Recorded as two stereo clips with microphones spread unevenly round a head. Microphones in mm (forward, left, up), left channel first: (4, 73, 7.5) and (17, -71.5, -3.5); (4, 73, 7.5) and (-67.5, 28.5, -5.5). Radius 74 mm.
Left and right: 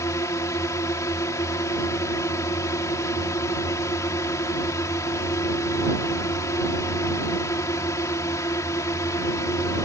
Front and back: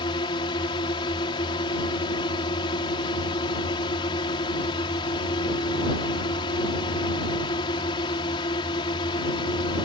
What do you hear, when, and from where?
0.0 s a drone: 30° left